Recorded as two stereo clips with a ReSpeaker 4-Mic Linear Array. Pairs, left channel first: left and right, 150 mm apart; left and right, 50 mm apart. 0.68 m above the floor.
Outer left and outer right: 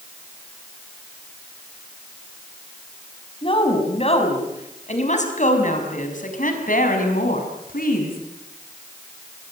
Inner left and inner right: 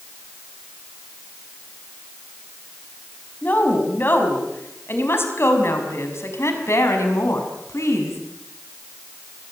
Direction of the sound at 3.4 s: 40° left (ahead or behind).